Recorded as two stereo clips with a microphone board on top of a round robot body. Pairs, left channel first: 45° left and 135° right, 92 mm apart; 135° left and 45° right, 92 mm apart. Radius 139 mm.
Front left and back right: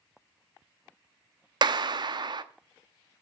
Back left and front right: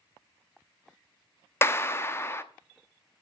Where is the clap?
165° right, 0.9 m.